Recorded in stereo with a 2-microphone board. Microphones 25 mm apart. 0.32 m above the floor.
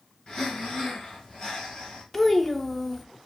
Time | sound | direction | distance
0.3 | breathing | 30° left (ahead or behind) | 3 m
2.1 | a child speaking | 10° left (ahead or behind) | 0.8 m